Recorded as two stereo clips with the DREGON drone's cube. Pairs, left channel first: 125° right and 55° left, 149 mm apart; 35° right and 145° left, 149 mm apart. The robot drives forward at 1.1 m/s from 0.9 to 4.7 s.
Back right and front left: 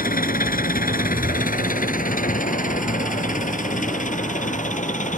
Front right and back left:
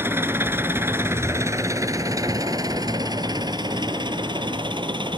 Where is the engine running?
140° right; by 5.2 s 155° right.